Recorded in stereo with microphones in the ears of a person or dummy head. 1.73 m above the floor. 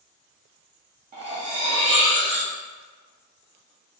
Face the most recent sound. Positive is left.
turn(degrees=-25)  # may be behind; listen again after turning